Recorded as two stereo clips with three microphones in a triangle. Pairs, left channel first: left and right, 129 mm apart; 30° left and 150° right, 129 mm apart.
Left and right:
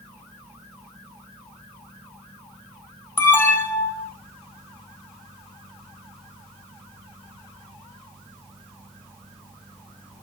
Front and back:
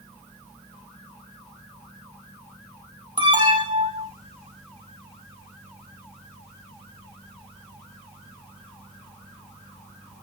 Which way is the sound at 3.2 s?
160° left.